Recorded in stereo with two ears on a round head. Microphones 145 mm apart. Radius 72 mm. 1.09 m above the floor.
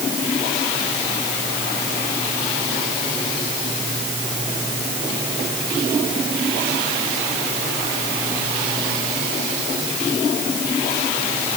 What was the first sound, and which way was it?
Only background noise.